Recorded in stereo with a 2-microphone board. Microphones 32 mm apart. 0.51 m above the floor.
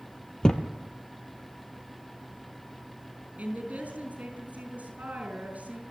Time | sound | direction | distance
0.4 | a thud | 20° left (ahead or behind) | 1.6 m
3.4 | a woman speaking | 55° right (ahead or behind) | 8 m